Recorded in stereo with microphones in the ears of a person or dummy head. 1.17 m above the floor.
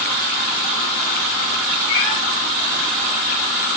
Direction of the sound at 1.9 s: 65° left (ahead or behind).